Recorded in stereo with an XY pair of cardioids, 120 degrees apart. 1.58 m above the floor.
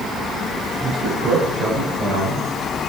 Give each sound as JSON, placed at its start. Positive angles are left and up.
{"t": 0.8, "sound": "a man speaking", "azimuth_deg": -50, "distance_m": 6.5}